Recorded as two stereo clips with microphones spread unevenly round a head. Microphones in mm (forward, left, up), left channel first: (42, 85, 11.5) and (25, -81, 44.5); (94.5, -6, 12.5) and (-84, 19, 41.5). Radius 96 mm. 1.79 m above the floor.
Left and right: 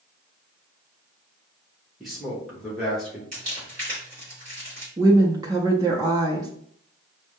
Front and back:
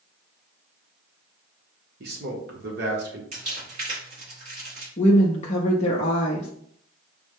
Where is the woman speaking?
60° right, 0.5 m.